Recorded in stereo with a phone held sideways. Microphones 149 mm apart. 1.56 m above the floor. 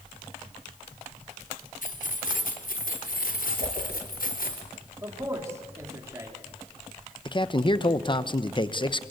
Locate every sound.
1.8 s keys jangling: 65° left (ahead or behind), 3 m; by 4.6 s 80° left, 4 m
3.6 s a whoosh: 65° right (ahead or behind), 6 m
5.0 s a man speaking: 20° right (ahead or behind), 4 m
7.2 s a man speaking: 35° left (ahead or behind), 1.2 m